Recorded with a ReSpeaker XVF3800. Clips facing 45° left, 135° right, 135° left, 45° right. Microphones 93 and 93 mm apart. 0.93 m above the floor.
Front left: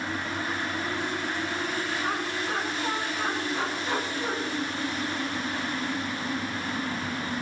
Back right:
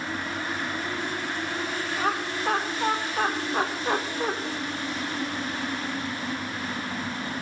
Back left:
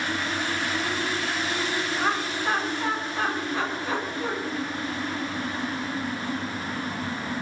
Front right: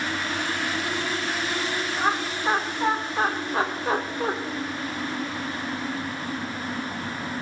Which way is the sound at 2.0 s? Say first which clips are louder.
Back right 2 dB, front right 3 dB; 125° right.